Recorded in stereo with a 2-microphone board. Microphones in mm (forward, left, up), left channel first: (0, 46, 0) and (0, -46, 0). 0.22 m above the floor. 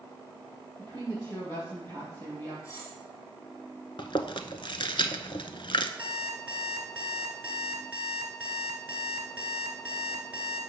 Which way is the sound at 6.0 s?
15° right (ahead or behind).